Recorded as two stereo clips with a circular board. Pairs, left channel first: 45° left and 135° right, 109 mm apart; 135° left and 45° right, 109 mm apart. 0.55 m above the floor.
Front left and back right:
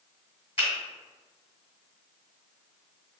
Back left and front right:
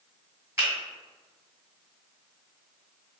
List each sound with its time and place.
0.6 s a finger snap: 20° left, 1.6 m